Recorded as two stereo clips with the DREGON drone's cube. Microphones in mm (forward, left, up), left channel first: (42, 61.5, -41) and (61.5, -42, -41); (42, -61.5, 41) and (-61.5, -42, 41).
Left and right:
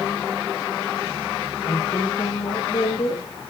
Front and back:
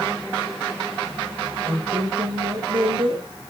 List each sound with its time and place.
1.6 s a woman speaking: 130° left, 9.5 m